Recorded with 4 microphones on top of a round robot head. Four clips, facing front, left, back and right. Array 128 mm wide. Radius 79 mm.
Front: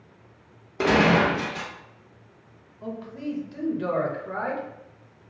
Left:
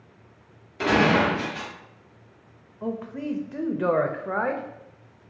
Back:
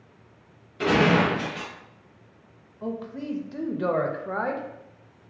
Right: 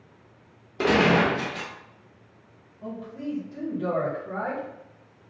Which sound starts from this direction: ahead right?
A gunshot, at 0.8 s.